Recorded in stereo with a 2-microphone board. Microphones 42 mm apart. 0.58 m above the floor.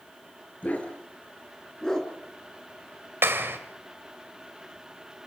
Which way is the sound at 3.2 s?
70° right (ahead or behind).